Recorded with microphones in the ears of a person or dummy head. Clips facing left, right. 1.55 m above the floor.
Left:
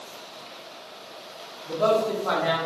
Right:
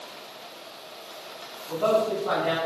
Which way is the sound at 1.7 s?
85° left.